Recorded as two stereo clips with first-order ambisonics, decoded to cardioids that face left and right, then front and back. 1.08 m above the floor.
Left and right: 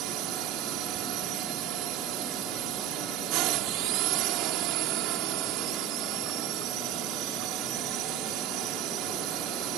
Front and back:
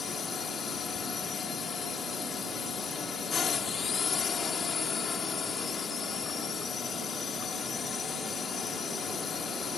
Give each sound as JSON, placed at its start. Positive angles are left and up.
{"t": 0.0, "sound": "a drone", "azimuth_deg": -65}